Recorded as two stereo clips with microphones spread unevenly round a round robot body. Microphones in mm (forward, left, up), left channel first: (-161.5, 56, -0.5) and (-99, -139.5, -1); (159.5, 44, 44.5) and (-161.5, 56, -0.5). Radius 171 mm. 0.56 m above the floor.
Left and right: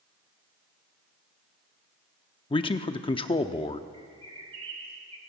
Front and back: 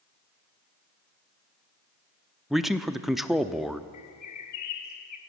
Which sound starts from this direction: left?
A man speaking, at 2.5 s.